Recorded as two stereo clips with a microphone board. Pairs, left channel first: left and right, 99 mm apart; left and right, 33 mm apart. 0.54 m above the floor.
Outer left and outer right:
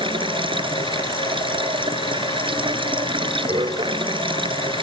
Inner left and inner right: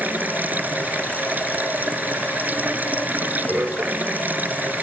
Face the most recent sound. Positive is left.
turn(degrees=-65)  # may be behind; listen again after turning